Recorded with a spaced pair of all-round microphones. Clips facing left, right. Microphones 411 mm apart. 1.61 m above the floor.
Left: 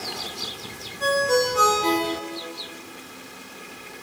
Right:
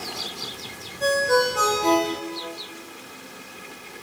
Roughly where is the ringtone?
Centre.